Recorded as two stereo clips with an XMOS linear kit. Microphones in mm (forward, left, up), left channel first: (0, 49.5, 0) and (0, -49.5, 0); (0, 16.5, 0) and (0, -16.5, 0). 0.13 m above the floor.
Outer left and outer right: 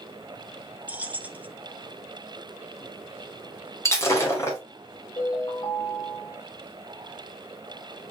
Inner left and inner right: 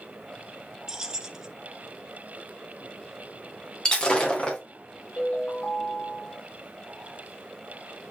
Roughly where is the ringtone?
Left.